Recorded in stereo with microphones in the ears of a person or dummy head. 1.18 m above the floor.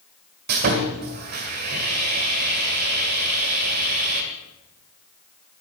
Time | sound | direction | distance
0.5 | sawing | 45° right (ahead or behind) | 1.8 m